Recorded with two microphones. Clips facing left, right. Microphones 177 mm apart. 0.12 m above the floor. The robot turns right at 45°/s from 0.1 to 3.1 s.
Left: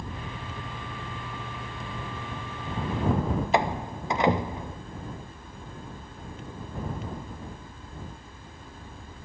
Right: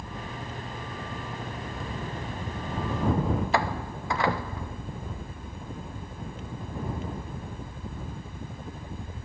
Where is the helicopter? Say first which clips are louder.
Even; 150° left; by 9.2 s 75° right.